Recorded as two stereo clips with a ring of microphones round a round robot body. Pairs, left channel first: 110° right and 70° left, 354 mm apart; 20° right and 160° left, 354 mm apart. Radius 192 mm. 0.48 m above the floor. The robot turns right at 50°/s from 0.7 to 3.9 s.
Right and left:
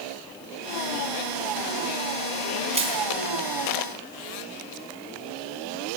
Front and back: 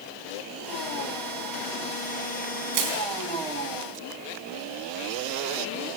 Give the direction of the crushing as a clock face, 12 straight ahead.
7 o'clock.